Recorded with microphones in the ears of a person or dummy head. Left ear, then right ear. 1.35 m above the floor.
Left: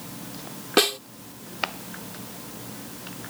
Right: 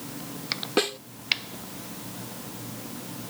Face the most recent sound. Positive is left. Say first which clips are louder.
# left 6 dB
turn(degrees=30)  # may be behind; listen again after turning